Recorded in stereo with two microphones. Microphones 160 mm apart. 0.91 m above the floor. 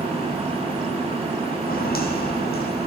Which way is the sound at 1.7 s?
65° left (ahead or behind).